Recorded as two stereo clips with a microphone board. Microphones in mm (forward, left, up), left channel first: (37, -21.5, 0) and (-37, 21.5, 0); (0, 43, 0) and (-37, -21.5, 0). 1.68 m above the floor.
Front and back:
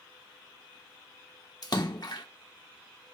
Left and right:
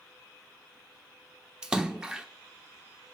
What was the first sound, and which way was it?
A splash, 45° right.